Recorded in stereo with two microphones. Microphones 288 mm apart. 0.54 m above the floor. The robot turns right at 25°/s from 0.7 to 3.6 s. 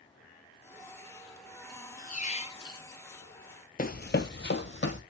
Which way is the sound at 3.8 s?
30° left (ahead or behind).